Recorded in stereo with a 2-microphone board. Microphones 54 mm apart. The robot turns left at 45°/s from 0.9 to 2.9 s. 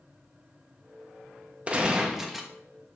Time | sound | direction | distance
1.7 | a gunshot | 145° right | 1.1 m